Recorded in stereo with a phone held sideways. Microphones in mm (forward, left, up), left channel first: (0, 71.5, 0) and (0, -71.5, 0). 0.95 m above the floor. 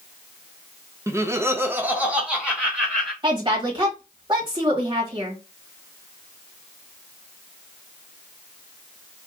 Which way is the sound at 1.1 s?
20° right (ahead or behind).